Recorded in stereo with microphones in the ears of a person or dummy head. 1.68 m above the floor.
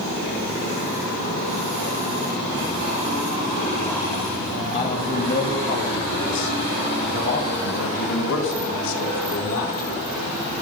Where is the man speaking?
35° left (ahead or behind), 2 m; by 9.9 s 80° left, 3.5 m.